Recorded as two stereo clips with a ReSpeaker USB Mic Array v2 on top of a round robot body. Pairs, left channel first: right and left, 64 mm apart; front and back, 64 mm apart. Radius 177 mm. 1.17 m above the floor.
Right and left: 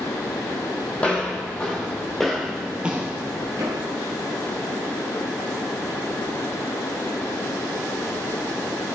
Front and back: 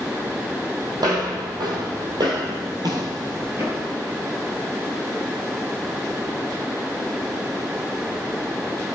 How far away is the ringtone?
No ringtone in this recording.